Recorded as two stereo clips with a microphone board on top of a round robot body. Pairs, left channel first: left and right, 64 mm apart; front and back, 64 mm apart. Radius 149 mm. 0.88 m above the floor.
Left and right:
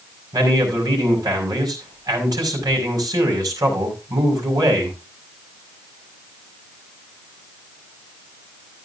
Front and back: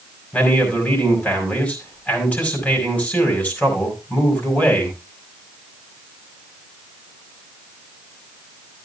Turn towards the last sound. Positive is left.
turn(degrees=-70)